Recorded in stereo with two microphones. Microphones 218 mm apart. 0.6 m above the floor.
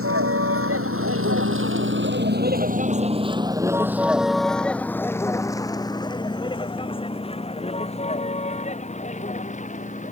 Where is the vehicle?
85° right; by 10.1 s 35° left (ahead or behind).